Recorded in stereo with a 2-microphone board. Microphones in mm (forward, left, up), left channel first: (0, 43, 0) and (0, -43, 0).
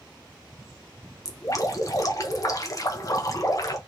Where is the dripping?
40° left (ahead or behind), 0.6 m.